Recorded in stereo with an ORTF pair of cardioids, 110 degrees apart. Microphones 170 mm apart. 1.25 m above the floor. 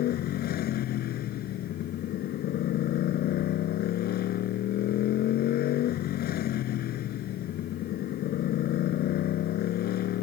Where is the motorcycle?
65° left.